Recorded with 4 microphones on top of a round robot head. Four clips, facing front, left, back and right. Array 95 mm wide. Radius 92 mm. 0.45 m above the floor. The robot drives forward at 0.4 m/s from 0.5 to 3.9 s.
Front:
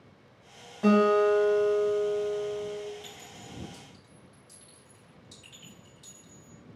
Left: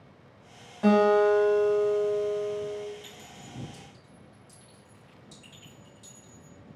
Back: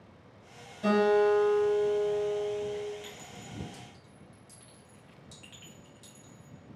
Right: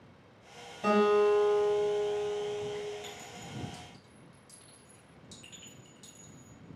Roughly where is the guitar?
Ahead left.